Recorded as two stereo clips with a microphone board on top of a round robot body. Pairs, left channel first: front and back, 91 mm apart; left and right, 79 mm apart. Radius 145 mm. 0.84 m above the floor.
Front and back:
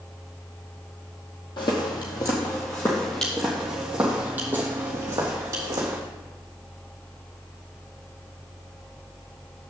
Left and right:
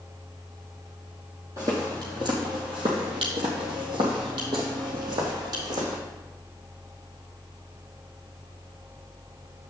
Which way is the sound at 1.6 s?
35° right.